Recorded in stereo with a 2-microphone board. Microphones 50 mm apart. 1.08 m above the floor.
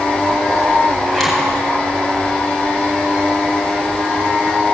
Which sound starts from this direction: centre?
A zipper, at 1.1 s.